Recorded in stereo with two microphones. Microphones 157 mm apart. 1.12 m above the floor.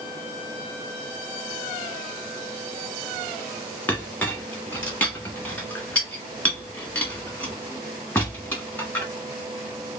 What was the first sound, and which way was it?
A clink, 10° left (ahead or behind).